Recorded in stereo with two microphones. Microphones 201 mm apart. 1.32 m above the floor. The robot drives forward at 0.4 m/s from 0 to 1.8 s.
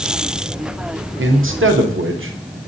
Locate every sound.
1.2 s a man speaking: 75° right (ahead or behind), 0.7 m; by 2.4 s 85° right, 0.7 m